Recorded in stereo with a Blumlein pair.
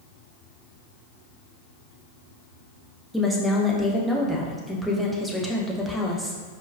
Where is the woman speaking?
Straight ahead, 0.7 m.